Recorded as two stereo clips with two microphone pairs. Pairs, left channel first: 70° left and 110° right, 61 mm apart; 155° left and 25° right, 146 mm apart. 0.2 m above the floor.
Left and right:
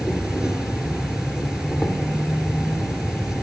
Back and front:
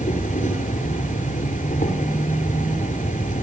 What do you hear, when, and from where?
0.0 s an insect: 170° left, 2.5 m